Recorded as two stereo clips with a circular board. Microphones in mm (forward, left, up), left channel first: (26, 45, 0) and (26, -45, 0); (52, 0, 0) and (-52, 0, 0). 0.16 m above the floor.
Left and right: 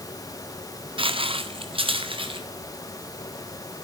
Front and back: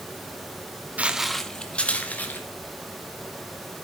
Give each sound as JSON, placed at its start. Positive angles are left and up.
{"t": 1.0, "sound": "footsteps", "azimuth_deg": -105, "distance_m": 0.9}